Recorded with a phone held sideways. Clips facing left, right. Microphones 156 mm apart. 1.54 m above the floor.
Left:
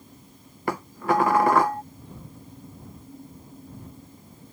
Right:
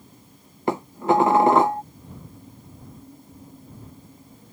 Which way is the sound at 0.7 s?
25° right (ahead or behind).